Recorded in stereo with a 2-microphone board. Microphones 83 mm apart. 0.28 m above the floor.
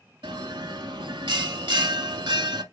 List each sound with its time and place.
0.2 s a bell: 80° right, 0.6 m